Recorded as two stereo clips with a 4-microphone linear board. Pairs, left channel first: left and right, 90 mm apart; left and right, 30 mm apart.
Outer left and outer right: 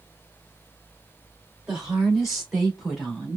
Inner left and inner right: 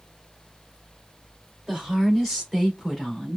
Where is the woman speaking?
5° right (ahead or behind), 3.5 m; by 3.4 s centre (ahead or behind), 2.5 m.